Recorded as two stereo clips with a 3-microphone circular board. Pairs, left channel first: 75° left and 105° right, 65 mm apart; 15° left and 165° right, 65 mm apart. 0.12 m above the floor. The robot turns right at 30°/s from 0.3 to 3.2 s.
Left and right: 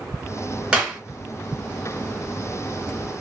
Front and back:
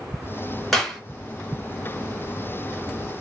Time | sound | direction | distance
0.7 | a clap | 65° right | 1.3 m